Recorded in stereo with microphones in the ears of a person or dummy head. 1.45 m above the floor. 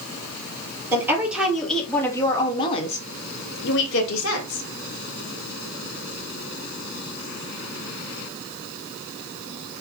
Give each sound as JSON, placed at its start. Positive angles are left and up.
{"t": 0.9, "sound": "a woman speaking", "side_deg": -10, "distance_m": 1.4}